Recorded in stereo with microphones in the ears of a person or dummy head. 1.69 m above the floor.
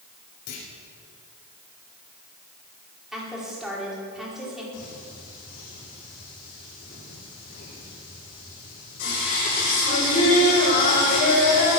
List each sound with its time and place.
0.5 s a clunk: 55° left (ahead or behind), 4 m
3.1 s a woman speaking: 5° right (ahead or behind), 4.5 m
4.7 s singing: 50° left (ahead or behind), 6 m